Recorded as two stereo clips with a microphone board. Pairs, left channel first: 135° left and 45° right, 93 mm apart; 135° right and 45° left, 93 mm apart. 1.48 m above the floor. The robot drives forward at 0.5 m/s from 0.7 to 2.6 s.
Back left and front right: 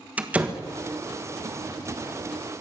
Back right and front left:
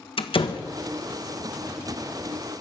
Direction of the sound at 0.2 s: 120° right.